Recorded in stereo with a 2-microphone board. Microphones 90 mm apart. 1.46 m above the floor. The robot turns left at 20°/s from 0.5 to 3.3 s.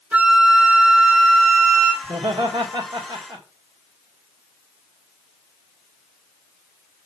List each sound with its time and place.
0.1 s a flute: 15° right (ahead or behind), 3 m; by 1.9 s 40° right (ahead or behind), 3 m
2.0 s laughter: 80° right, 2 m; by 3.5 s 55° right (ahead or behind), 2 m